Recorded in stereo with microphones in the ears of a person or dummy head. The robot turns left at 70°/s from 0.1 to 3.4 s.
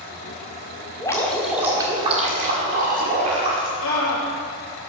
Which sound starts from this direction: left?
A scream, at 3.8 s.